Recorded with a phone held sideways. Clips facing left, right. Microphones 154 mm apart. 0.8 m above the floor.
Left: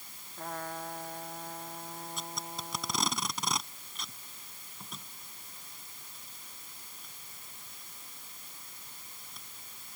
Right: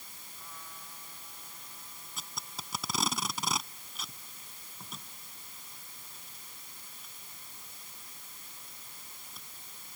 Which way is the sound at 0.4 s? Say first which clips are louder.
Left 14 dB; 65° left (ahead or behind).